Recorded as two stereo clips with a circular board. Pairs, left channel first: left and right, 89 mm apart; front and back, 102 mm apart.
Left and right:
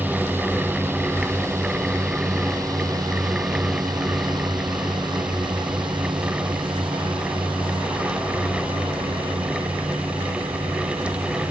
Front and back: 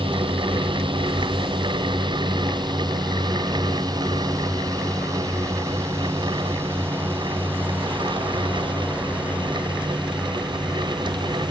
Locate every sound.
0.0 s a drone: 155° right; by 11.5 s 95° right